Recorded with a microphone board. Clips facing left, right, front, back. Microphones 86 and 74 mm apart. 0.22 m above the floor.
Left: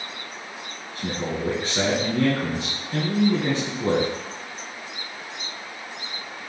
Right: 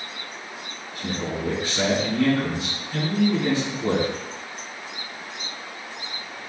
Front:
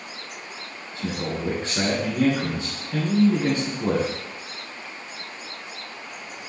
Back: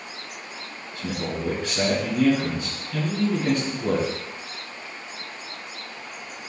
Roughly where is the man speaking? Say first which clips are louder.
Left 1 dB, front 1 dB; ahead left.